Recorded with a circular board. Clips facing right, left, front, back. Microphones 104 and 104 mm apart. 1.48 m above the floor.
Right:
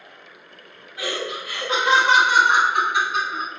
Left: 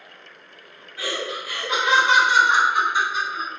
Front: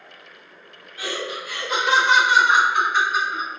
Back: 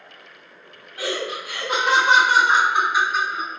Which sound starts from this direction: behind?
Laughter, at 1.0 s.